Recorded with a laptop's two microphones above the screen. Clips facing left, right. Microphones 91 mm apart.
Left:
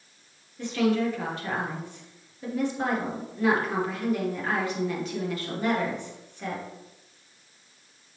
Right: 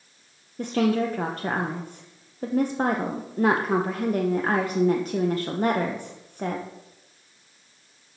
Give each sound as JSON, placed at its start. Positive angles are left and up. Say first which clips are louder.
{"t": 0.6, "sound": "a woman speaking", "louder": "right 2 dB", "side_deg": -45, "distance_m": 0.8}